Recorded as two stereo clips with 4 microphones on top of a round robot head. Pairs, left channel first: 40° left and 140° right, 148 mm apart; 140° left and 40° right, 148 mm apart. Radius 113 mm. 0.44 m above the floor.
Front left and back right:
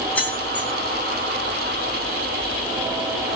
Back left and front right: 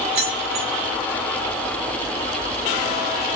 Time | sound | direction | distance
0.1 | keys jangling | 40° right | 3.5 m